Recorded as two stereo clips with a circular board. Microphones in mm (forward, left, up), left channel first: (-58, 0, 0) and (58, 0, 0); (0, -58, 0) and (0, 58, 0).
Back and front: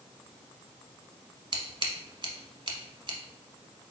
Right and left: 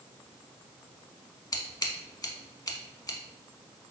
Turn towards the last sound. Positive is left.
turn(degrees=-35)